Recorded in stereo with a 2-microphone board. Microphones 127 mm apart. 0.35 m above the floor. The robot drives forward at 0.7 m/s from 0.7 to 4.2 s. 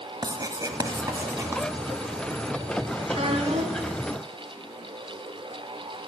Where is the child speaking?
55° right (ahead or behind), 2.5 m; by 3.9 s 60° right (ahead or behind), 2 m.